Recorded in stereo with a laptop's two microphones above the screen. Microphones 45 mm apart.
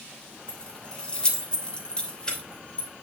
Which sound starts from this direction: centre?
Keys jangling, at 0.5 s.